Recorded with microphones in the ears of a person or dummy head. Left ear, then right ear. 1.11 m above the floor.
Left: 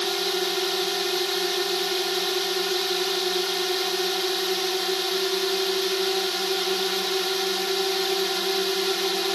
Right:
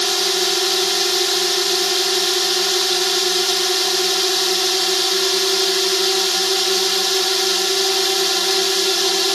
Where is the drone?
20° right (ahead or behind).